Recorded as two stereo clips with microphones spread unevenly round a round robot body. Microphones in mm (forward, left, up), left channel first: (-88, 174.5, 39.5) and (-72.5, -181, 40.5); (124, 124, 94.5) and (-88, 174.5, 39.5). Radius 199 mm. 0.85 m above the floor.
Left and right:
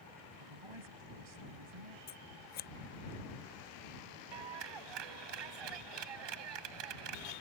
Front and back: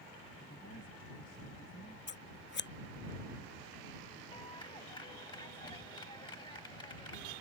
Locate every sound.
0.4 s a woman speaking: 75° right; by 2.0 s 85° right
2.1 s scissors: 25° left
4.3 s a clap: 90° right